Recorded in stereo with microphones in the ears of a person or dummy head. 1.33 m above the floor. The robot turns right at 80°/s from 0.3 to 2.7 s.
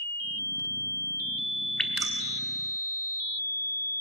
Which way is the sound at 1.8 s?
5° left (ahead or behind).